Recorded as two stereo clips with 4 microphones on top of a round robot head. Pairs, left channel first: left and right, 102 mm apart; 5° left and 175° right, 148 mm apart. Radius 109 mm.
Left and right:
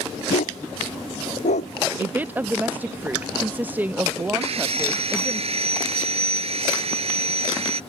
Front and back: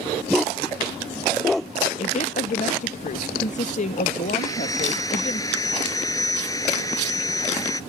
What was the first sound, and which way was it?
A dog barking, 90° left.